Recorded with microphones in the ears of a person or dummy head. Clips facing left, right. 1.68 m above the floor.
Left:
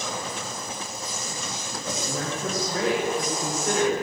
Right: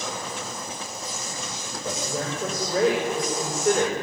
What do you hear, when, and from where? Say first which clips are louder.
1.8 s a woman speaking: right 2 dB; 75° right (ahead or behind), 7.5 m; by 3.9 s 70° right (ahead or behind), 6 m